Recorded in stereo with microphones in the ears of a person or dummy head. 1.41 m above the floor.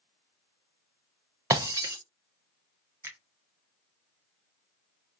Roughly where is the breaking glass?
Centre.